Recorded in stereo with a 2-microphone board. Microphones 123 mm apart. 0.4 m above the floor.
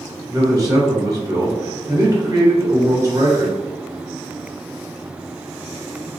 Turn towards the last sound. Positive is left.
turn(degrees=-30)  # may be behind; listen again after turning